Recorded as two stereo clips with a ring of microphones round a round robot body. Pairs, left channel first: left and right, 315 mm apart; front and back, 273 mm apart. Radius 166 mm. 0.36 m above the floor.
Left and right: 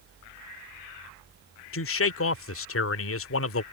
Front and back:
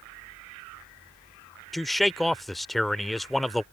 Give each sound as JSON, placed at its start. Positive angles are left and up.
{"t": 1.7, "sound": "a man speaking", "azimuth_deg": 90}